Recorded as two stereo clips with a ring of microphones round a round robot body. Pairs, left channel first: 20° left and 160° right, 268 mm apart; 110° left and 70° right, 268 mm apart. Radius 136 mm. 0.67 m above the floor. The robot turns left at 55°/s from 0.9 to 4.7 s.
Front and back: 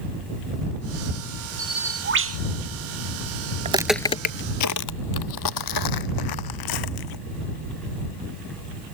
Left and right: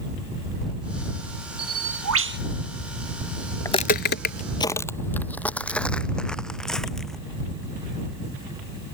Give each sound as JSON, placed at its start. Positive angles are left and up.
{"t": 1.6, "sound": "a bird", "azimuth_deg": -80}
{"t": 3.6, "sound": "footsteps", "azimuth_deg": 180}